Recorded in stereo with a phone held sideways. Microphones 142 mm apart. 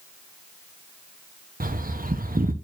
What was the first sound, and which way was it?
A bird, 85° right.